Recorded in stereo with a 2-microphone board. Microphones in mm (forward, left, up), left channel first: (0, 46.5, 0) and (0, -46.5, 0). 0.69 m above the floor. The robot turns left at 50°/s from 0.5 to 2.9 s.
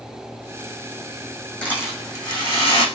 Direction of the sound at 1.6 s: 170° left.